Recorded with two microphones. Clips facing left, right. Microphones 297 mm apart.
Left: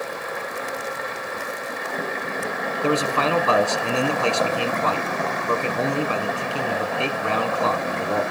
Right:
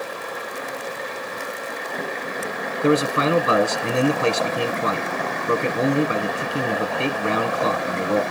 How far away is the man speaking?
About 1.2 m.